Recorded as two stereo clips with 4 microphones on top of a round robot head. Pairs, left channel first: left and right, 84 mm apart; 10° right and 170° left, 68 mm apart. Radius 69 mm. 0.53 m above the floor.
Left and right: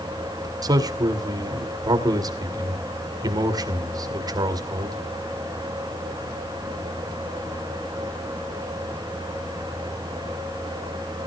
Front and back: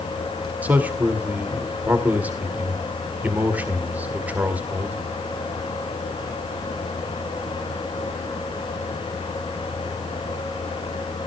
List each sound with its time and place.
0.6 s a man speaking: 120° right, 2 m